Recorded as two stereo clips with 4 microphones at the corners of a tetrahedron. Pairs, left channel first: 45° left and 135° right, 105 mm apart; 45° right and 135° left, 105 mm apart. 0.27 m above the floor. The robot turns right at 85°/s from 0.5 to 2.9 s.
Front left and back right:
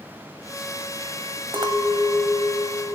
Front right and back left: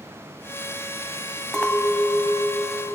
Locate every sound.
1.5 s a clink: 130° right, 0.7 m; by 3.0 s 15° right, 0.7 m